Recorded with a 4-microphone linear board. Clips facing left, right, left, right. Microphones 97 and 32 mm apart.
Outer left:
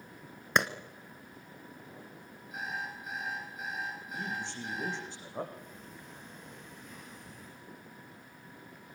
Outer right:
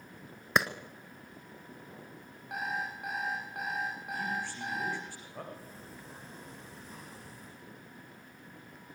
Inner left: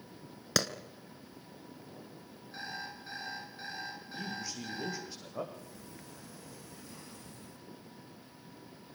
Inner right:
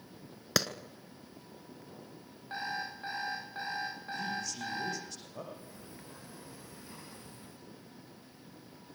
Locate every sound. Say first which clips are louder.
0.6 s a clap: even, even; centre (ahead or behind), 1.3 m
2.5 s an alarm clock: outer right 3 dB, inner right 5 dB; 65° right (ahead or behind), 9.5 m
4.1 s a man speaking: outer right 2 dB, inner right 3 dB; 20° left (ahead or behind), 6 m
5.5 s a sliding door: even, even; 35° right (ahead or behind), 9.5 m